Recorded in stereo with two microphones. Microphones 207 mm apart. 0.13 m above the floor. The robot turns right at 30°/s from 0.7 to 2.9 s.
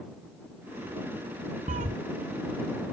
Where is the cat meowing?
40° right (ahead or behind); by 2.0 s 45° right (ahead or behind).